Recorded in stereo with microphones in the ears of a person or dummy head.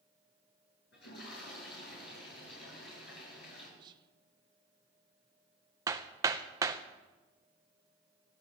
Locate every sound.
0.9 s a toilet flushing: 70° left (ahead or behind), 8.5 m
3.8 s whispering: 25° right (ahead or behind), 0.6 m
5.9 s hammering: 15° right (ahead or behind), 0.7 m